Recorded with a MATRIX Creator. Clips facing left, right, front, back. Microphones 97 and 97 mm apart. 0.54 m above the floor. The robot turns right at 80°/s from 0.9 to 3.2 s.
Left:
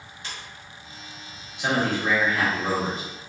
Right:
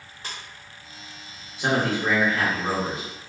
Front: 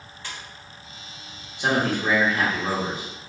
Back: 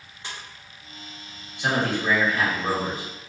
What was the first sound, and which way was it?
A splash, 120° right.